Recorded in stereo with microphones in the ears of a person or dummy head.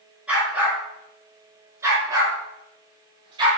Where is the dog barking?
15° right (ahead or behind), 5 m; by 3.5 s 35° right (ahead or behind), 5.5 m.